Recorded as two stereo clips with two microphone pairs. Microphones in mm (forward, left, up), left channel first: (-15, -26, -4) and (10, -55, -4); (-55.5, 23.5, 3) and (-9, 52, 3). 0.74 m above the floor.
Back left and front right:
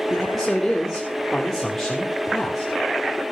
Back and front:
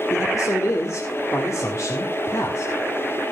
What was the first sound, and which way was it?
A man speaking, 145° right.